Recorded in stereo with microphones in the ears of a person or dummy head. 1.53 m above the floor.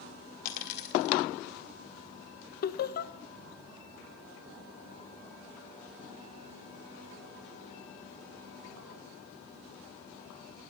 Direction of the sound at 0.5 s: 45° left (ahead or behind).